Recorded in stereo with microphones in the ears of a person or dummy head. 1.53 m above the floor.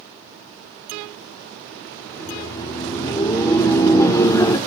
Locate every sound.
2.1 s laughter: 20° left (ahead or behind), 1.3 m